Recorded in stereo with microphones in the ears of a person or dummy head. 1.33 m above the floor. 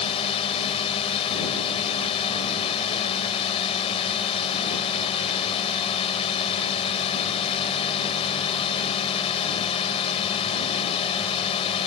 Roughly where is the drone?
Left.